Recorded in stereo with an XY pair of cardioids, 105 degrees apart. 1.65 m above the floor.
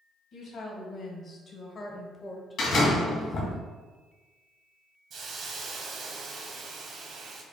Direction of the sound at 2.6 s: 70° left.